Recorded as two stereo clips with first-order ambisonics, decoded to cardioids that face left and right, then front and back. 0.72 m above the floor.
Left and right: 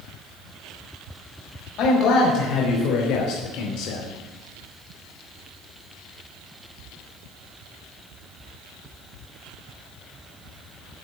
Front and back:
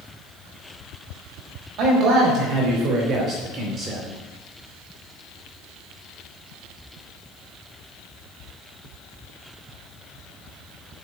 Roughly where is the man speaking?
Behind left.